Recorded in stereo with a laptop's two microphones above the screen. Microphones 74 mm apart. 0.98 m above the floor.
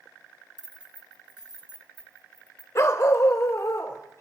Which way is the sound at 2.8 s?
45° left (ahead or behind).